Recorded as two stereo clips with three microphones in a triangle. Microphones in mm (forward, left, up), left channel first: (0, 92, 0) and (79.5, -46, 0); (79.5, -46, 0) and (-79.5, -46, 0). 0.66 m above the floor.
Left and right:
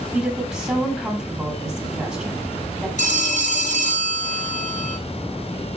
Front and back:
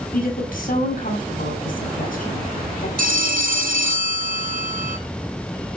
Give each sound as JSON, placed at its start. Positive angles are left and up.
{"t": 0.1, "sound": "a woman speaking", "azimuth_deg": 25, "distance_m": 6.5}
{"t": 3.0, "sound": "a phone ringing", "azimuth_deg": 155, "distance_m": 1.5}